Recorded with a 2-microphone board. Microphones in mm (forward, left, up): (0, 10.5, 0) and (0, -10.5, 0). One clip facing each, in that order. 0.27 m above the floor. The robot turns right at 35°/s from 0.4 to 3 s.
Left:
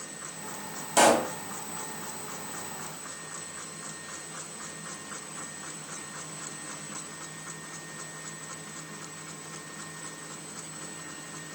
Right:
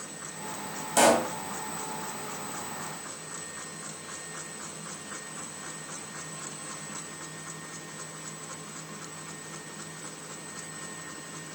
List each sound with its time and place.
1.0 s a pop: 10° left (ahead or behind), 2 m; by 1.3 s centre (ahead or behind), 2 m